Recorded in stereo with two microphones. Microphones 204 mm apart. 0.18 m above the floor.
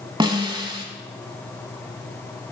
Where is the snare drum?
25° right (ahead or behind), 0.7 m.